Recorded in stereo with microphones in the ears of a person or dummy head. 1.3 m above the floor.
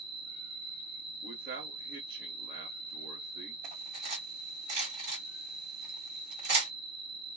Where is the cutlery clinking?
40° right (ahead or behind), 2.5 m.